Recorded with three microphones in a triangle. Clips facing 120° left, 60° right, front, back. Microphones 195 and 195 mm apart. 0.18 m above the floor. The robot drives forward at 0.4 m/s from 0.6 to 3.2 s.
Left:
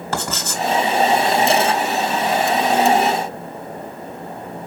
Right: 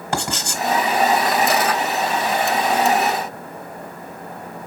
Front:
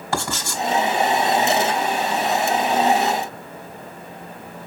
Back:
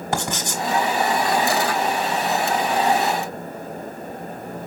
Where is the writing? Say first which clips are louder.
Even, even; 125° right, 1.5 m.